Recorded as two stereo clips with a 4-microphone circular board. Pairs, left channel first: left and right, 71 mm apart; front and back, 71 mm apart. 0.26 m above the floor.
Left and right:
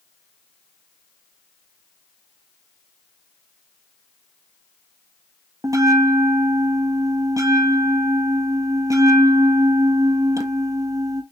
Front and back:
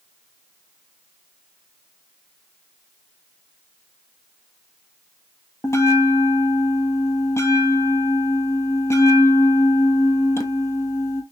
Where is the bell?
50° right, 1.0 m.